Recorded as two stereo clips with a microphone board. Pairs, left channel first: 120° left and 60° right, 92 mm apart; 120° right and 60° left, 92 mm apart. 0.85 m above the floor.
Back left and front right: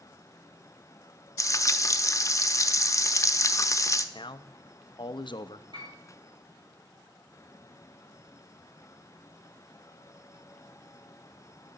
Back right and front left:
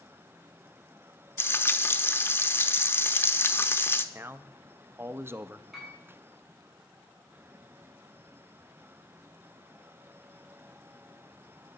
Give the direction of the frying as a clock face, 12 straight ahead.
6 o'clock.